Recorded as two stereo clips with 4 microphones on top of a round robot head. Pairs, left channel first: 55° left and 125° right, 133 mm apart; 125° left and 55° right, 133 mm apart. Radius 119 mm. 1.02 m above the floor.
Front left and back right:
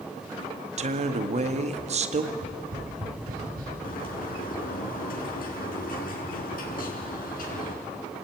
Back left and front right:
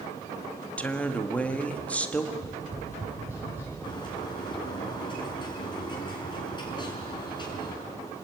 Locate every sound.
0.8 s a woman speaking: 155° right, 1.7 m
2.3 s tapping: 130° right, 6 m
3.8 s a bird: 65° left, 4.5 m